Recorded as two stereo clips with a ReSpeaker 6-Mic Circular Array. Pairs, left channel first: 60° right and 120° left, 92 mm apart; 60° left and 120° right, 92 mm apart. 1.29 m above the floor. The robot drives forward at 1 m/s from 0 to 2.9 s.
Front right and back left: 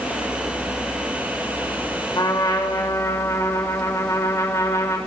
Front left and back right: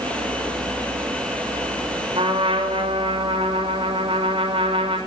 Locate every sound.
2.1 s a trumpet: 105° right, 3 m; by 5.0 s 120° right, 3 m